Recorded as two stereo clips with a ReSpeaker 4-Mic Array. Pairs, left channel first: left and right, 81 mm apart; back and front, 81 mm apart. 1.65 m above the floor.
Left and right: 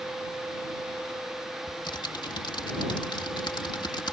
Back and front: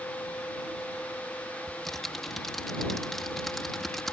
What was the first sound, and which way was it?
Typing on a keyboard, 95° left.